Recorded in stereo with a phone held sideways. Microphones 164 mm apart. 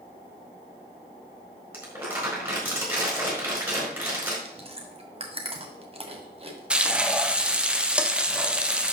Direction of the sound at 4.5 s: 35° right (ahead or behind).